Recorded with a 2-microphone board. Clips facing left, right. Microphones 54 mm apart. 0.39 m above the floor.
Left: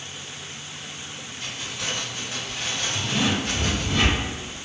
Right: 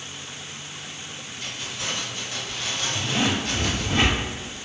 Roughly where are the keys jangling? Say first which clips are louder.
Left 1 dB; left.